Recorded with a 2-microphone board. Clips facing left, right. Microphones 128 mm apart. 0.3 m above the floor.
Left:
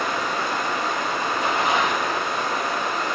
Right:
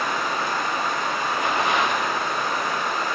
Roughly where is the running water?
Left.